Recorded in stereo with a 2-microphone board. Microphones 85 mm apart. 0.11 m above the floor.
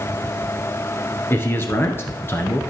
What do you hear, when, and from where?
1.3 s a man speaking: 30° left (ahead or behind), 2.0 m